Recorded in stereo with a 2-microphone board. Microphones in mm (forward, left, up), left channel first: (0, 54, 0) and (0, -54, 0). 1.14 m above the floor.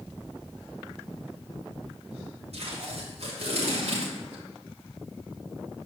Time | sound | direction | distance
2.5 | tape being pulled | 75° right (ahead or behind) | 3 m